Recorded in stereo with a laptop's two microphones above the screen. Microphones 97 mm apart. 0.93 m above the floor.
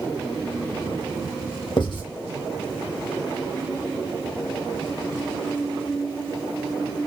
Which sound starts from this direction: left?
Writing, at 1.8 s.